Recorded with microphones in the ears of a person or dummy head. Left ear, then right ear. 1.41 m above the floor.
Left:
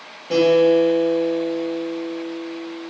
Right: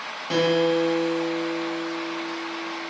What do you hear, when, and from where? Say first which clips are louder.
0.3 s a guitar: left 6 dB; 30° right (ahead or behind), 1.2 m